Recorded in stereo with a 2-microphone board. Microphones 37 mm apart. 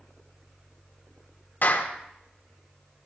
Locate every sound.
1.6 s a clap: 60° left (ahead or behind), 1.8 m